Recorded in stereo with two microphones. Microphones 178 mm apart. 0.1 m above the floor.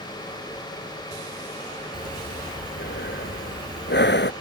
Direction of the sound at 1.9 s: 75° left (ahead or behind).